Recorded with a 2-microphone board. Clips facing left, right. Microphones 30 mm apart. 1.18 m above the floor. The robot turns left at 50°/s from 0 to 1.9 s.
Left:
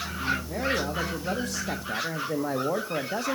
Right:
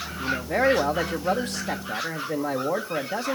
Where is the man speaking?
85° right, 1.0 m; by 3.3 s 170° right, 1.0 m.